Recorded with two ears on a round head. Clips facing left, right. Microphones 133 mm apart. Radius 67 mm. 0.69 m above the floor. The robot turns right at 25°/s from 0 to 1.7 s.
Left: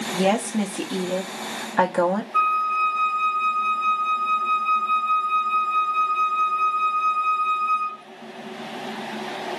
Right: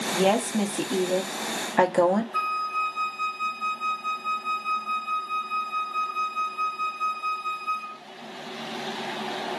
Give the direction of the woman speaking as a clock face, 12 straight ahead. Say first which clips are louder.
Left 1 dB; 6 o'clock.